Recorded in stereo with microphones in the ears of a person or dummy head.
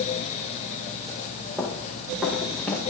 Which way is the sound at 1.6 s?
5° right (ahead or behind).